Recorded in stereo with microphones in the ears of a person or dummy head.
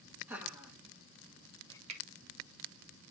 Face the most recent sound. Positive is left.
turn(degrees=-40)  # may be behind; listen again after turning